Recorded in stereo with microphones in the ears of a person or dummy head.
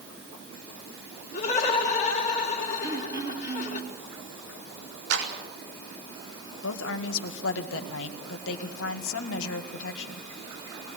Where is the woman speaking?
75° left (ahead or behind), 1.9 m.